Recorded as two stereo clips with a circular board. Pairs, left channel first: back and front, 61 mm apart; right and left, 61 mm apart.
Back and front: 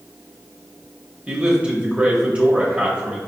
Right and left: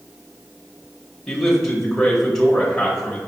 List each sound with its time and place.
1.3 s a man speaking: 15° right, 0.9 m